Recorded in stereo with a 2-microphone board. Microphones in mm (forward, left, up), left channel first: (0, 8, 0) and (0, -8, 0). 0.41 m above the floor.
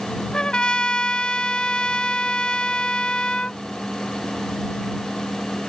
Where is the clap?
No clap in this recording.